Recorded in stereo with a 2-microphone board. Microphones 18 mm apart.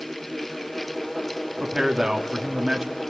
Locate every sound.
1.6 s a man speaking: 25° right (ahead or behind), 3 m